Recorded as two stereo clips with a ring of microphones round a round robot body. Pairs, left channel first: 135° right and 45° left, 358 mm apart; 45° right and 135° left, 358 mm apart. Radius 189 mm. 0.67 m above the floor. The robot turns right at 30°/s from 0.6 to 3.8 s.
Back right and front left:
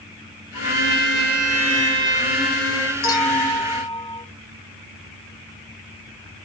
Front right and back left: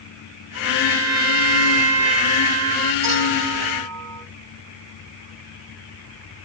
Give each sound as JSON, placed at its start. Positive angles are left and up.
{"t": 0.5, "sound": "a trumpet", "azimuth_deg": 100, "distance_m": 6.0}
{"t": 3.0, "sound": "a clink", "azimuth_deg": 170, "distance_m": 5.5}